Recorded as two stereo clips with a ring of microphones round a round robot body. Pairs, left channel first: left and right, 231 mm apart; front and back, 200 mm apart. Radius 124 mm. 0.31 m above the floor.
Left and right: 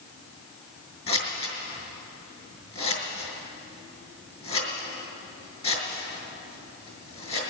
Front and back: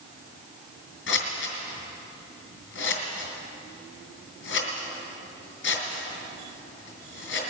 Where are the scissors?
25° left, 2.5 m.